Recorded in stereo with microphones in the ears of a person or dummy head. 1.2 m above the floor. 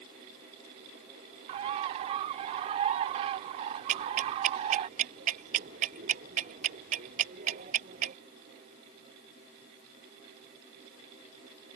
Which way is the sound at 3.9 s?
50° right (ahead or behind).